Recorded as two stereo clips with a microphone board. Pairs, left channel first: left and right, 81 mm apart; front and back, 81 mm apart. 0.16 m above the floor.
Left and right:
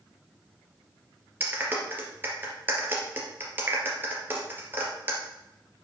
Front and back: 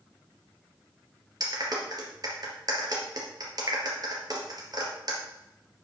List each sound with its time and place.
1.4 s a clap: 150° right, 3 m